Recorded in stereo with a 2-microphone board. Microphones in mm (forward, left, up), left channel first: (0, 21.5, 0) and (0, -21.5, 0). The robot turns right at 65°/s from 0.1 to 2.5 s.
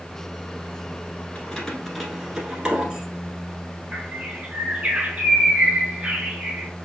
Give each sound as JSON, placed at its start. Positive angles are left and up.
{"t": 1.4, "sound": "keys jangling", "side_deg": 25, "distance_m": 1.1}
{"t": 3.9, "sound": "a bird", "side_deg": -30, "distance_m": 1.3}